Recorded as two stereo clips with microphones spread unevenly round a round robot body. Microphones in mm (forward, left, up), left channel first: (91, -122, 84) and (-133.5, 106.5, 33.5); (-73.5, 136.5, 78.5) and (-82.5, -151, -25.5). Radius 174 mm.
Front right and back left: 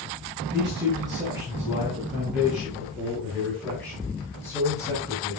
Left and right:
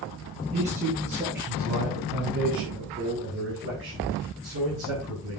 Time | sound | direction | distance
0.5 | a man speaking | 150° right | 8 m